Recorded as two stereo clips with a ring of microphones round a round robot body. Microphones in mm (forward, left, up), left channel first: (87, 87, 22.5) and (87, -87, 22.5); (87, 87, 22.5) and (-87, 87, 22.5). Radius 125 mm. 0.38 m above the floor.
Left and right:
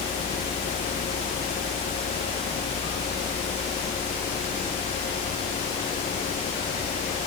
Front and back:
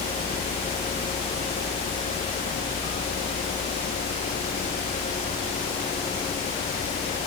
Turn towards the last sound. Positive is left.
No sound to turn to.